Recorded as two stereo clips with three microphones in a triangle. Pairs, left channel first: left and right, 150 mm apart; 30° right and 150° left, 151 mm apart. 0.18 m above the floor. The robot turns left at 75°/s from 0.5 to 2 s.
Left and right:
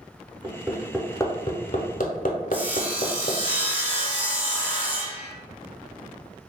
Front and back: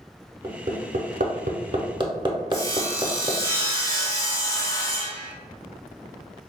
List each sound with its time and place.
0.4 s hammering: 150° right, 0.7 m; by 3.4 s 95° left, 0.7 m
2.5 s sawing: 30° right, 0.9 m